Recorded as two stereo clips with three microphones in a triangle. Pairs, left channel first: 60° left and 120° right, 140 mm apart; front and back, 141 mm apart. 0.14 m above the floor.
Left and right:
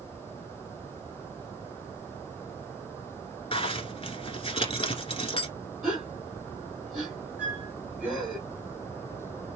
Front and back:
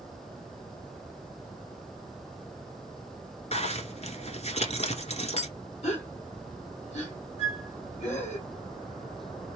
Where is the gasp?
35° right, 2.5 m.